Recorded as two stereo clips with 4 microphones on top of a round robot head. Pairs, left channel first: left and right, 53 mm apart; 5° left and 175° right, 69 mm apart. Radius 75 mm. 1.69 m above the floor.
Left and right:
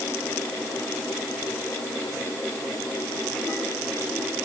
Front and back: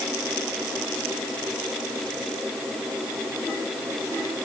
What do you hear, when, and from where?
Only background noise.